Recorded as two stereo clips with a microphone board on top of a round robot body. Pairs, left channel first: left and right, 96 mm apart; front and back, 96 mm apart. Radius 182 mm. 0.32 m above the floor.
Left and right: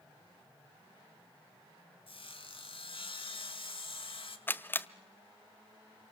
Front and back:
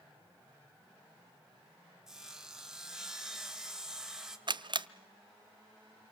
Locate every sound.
2.1 s sawing: 95° left, 2.5 m
4.5 s a camera shutter: 155° left, 0.8 m